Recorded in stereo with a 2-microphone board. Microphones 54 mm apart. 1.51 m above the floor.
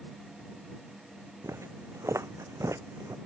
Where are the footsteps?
65° right (ahead or behind); by 3.2 s 70° right (ahead or behind).